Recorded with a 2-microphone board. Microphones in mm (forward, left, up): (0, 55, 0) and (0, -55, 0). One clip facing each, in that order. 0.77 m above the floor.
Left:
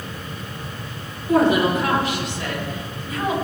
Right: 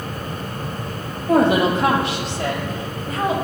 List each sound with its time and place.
1.3 s a woman speaking: 80° right, 3.5 m; by 3.3 s 70° right (ahead or behind), 4 m